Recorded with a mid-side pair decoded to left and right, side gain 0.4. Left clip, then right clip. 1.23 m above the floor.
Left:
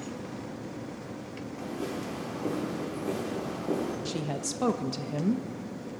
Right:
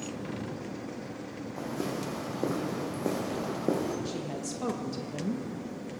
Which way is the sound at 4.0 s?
50° left.